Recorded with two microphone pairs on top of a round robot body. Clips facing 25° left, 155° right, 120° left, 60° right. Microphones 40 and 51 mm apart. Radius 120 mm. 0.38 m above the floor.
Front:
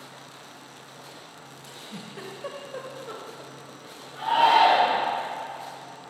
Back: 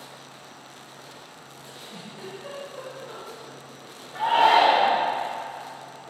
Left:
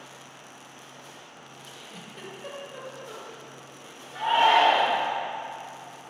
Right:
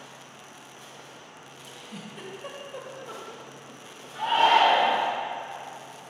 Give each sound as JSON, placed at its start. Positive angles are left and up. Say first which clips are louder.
{"t": 0.0, "sound": "an insect", "louder": "back 1 dB, even", "azimuth_deg": 80, "distance_m": 2.5}
{"t": 1.6, "sound": "a giggle", "louder": "front 1 dB, right 3 dB", "azimuth_deg": 20, "distance_m": 1.4}
{"t": 4.2, "sound": "a shout", "louder": "back 1 dB, even", "azimuth_deg": 180, "distance_m": 2.5}